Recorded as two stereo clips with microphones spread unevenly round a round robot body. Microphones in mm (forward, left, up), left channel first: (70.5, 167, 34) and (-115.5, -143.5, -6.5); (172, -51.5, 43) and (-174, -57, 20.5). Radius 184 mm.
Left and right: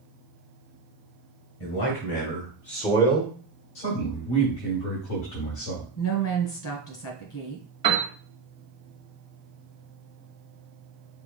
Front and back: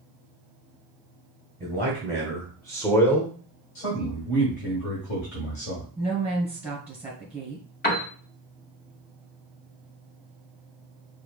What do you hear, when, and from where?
1.6 s a man speaking: 85° left, 2 m; by 3.4 s 90° right, 1.2 m
3.8 s a man speaking: 45° left, 2.5 m
6.0 s a woman speaking: 95° left, 2 m
7.8 s a piano: 55° right, 1.4 m